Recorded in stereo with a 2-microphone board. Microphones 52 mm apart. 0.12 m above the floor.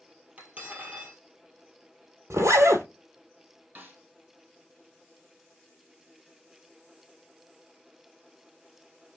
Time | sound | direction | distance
0.4 | cutlery clinking | 30° right (ahead or behind) | 1.8 m
2.3 | a zipper | 70° right (ahead or behind) | 0.8 m
3.8 | a snare drum | 30° right (ahead or behind) | 2 m